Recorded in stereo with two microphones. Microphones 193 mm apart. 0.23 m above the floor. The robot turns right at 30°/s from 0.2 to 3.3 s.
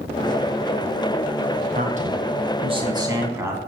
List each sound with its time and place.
1.7 s a man speaking: 65° right, 1.6 m; by 3.6 s 20° right, 1.6 m